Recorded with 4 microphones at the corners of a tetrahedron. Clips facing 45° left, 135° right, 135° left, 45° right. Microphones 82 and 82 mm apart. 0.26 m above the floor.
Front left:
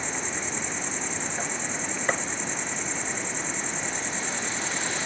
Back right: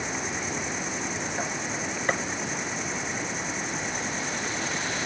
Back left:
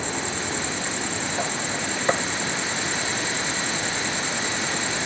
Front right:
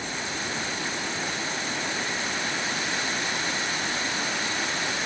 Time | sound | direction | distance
0.0 | an insect | 145° left | ?
2.1 | a gunshot | 135° left | ?